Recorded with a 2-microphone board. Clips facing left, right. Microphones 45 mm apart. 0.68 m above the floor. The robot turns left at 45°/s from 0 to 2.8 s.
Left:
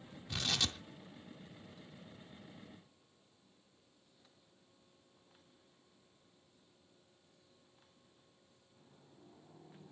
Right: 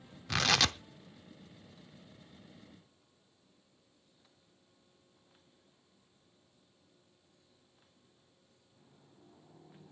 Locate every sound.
0.3 s tearing paper: 75° right (ahead or behind), 0.6 m; by 0.8 s 80° right, 0.6 m